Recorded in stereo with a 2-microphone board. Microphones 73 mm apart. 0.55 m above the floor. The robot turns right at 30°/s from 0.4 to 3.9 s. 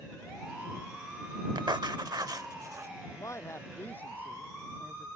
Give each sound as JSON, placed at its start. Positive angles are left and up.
{"t": 1.6, "sound": "writing", "azimuth_deg": -80}
{"t": 3.0, "sound": "a man speaking", "side_deg": 50}